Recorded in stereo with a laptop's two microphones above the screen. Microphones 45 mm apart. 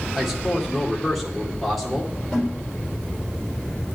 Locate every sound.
0.1 s a man speaking: centre (ahead or behind), 2.5 m
2.3 s a snare drum: 10° left (ahead or behind), 3.5 m